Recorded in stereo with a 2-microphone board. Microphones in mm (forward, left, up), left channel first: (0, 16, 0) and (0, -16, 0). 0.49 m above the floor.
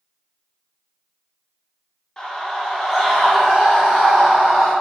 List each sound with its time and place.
2.2 s a scream: 20° left (ahead or behind), 0.7 m; by 4.7 s 40° right (ahead or behind), 1.2 m